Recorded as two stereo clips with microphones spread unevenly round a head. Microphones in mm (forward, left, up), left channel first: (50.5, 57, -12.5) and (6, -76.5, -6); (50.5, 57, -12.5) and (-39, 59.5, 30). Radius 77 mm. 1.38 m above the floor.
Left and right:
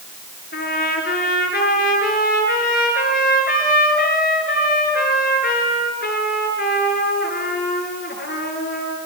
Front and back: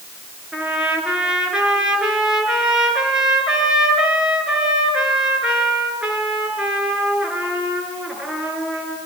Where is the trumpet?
100° left, 7 m.